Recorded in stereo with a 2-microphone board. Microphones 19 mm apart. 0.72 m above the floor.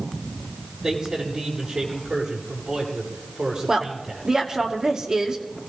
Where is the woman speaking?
25° right (ahead or behind), 2.5 m.